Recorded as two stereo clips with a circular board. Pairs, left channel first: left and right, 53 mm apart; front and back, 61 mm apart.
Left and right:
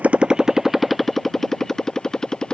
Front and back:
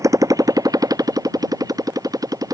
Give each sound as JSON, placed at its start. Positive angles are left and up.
{"t": 0.0, "sound": "a motorcycle", "azimuth_deg": -150}